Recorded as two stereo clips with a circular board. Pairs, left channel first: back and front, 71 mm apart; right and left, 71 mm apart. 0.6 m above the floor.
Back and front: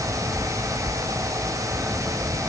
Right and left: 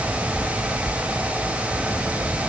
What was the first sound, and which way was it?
Only background noise.